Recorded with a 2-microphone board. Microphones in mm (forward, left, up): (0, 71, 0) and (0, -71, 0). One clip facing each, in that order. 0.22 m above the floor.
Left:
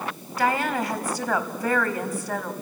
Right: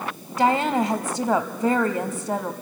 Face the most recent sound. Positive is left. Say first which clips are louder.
# right 4 dB
turn(degrees=-25)  # may be behind; listen again after turning